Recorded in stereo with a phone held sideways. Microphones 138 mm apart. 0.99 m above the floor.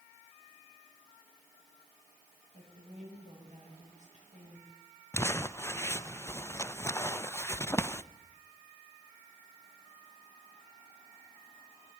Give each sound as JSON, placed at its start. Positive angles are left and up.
{"t": 2.5, "sound": "a woman speaking", "side_deg": -55, "distance_m": 8.0}
{"t": 5.1, "sound": "crumpling", "side_deg": 20, "distance_m": 0.6}